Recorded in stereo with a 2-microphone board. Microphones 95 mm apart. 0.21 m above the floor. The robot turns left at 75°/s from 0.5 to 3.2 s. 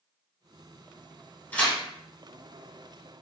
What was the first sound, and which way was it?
Tearing paper, 20° left (ahead or behind).